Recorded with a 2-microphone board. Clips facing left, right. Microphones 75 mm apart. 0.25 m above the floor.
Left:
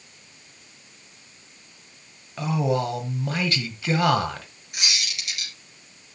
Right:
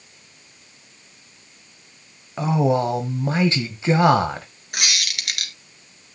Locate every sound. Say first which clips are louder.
2.4 s a man speaking: right 5 dB; 25° right (ahead or behind), 1.2 m
4.7 s a squeak: right 4 dB; 65° right (ahead or behind), 1.9 m